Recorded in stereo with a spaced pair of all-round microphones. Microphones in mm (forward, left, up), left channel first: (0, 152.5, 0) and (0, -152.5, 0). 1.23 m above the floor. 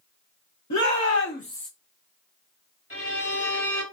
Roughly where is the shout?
Left.